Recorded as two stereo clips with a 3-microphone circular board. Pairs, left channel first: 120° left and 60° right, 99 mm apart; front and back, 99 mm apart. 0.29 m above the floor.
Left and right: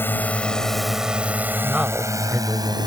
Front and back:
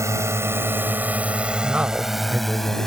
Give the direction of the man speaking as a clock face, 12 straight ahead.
4 o'clock.